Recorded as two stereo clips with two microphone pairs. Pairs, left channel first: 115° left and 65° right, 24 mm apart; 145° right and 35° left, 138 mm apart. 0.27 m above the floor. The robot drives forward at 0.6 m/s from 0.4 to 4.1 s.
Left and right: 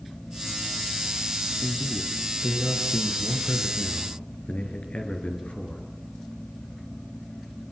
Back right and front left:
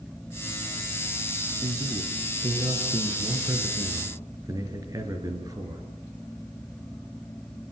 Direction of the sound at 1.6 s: 80° left.